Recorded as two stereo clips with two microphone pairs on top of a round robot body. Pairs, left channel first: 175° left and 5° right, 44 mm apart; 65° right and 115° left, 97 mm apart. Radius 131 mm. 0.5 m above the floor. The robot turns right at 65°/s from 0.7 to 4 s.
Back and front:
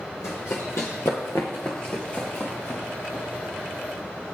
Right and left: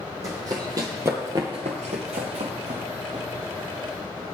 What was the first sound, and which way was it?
Running footsteps, 175° left.